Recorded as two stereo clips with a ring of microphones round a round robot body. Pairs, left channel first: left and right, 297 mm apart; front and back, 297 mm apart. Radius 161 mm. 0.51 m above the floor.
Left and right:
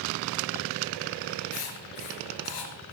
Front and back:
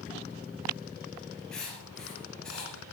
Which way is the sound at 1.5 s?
90° left.